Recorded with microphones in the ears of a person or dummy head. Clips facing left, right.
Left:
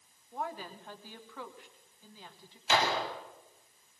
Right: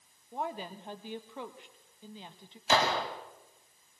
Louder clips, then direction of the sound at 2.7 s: Right 2 dB; 30° right (ahead or behind).